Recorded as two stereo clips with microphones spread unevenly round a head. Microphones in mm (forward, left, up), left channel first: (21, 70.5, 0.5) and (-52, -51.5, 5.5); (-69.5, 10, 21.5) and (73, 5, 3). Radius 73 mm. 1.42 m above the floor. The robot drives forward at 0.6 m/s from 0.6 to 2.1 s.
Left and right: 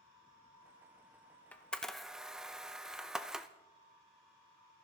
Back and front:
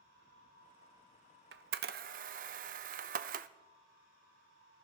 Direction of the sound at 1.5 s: 20° right.